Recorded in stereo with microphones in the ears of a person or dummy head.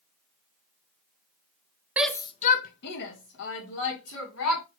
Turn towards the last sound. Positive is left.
turn(degrees=80)